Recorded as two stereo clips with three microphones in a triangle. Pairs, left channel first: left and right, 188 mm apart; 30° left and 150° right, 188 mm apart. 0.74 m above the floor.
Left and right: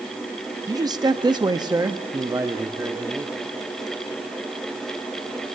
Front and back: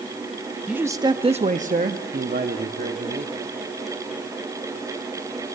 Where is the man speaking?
75° right, 0.6 m; by 3.3 s 165° right, 1.6 m.